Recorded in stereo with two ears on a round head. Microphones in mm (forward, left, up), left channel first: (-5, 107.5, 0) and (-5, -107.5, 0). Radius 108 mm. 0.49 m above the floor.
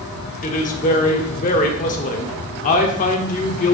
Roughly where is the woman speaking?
Left.